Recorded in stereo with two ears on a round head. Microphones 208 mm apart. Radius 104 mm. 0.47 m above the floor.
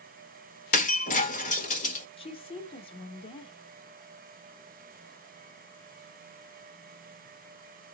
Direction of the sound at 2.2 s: 25° left (ahead or behind).